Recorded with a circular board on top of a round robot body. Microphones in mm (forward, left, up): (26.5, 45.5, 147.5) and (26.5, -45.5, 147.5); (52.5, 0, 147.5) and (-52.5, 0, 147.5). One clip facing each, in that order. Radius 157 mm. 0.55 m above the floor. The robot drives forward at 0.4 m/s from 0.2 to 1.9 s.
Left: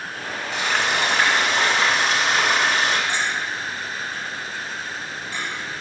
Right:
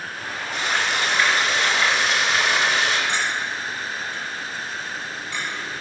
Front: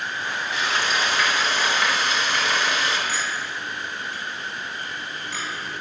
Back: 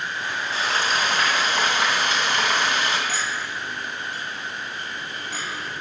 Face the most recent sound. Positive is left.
turn(degrees=140)